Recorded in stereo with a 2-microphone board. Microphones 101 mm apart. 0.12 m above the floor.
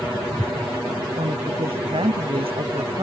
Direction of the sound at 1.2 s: 75° right (ahead or behind).